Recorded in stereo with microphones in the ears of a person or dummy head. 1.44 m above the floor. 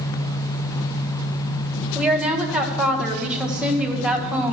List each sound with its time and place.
1.9 s a woman speaking: 5° right (ahead or behind), 1.5 m